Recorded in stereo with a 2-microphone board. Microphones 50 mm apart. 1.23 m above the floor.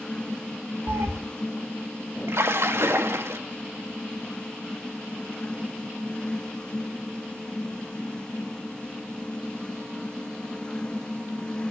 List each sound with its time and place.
0.9 s a cat meowing: 75° right (ahead or behind), 2 m
2.3 s a splash: 65° right (ahead or behind), 1.1 m